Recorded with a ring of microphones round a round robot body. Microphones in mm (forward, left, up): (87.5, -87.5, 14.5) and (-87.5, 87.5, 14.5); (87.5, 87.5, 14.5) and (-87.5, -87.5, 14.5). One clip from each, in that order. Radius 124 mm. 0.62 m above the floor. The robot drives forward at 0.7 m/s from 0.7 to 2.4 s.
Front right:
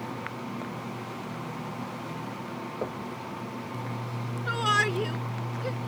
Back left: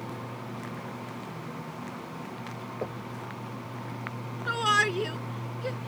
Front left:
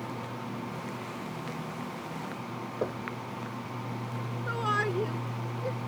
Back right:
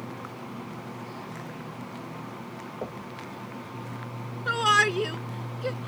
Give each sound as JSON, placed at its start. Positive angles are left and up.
{"t": 2.8, "sound": "knocking", "azimuth_deg": 40}
{"t": 4.5, "sound": "a shout", "azimuth_deg": -145}